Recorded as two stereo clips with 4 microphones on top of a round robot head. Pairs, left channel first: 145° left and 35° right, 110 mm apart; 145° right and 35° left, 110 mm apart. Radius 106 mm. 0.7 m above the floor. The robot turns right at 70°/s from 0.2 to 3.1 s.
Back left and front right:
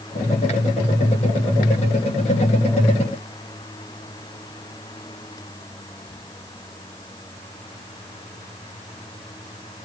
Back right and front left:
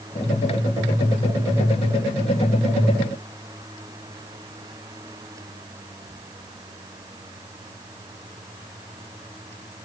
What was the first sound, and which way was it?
Only background noise.